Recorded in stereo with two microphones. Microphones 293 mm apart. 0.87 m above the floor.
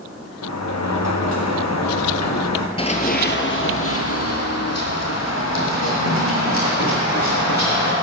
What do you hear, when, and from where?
0.4 s a sliding door: 70° left (ahead or behind), 0.8 m
2.8 s running footsteps: 20° left (ahead or behind), 0.9 m; by 7.9 s 80° left, 4.5 m